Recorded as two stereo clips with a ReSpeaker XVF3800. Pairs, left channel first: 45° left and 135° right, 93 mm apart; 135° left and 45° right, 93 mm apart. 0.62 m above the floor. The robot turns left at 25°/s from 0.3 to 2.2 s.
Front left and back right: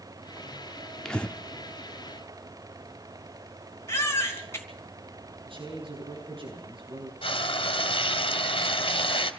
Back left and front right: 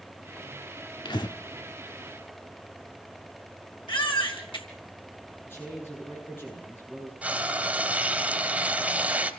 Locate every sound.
1.1 s breathing: 125° left, 1.2 m; by 1.4 s 115° left, 1.2 m
3.9 s a baby crying: 105° left, 3 m
5.5 s a man speaking: 160° right, 10 m
7.2 s frying: 30° left, 2 m